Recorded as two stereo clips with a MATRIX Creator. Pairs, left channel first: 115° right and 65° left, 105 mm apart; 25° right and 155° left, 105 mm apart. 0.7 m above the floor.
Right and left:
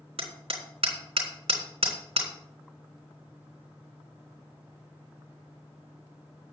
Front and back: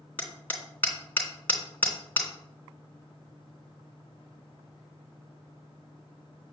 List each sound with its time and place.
0.2 s hammering: 50° left, 3 m